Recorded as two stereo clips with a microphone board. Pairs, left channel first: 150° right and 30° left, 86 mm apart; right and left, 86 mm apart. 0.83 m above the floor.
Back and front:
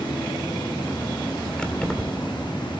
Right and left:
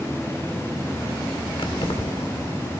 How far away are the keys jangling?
About 1.9 m.